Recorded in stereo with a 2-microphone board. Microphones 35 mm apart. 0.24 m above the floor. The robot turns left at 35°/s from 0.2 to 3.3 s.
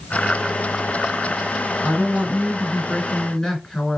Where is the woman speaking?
70° left, 2.5 m; by 4.0 s 20° left, 2.5 m.